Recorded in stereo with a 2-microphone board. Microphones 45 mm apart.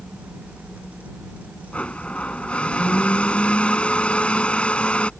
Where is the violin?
No violin in this recording.